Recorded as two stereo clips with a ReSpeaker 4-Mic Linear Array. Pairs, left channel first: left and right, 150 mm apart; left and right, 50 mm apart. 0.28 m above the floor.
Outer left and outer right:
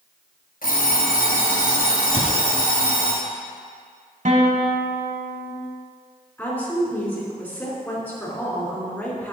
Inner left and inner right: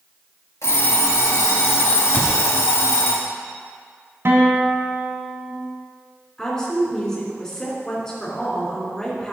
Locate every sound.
0.6 s an alarm clock: 75° left (ahead or behind), 2.5 m
2.1 s a cupboard door: 40° left (ahead or behind), 1.9 m
4.2 s a guitar: 55° right (ahead or behind), 1.4 m
6.4 s a woman speaking: 10° left (ahead or behind), 3 m